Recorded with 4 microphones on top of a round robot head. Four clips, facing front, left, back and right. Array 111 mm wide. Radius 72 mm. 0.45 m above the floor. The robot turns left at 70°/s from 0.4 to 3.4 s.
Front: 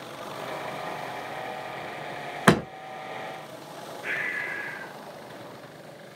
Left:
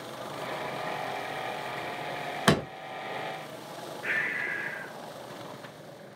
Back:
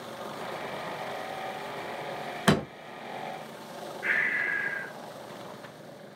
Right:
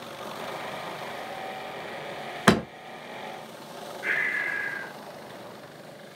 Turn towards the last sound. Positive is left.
turn(degrees=-150)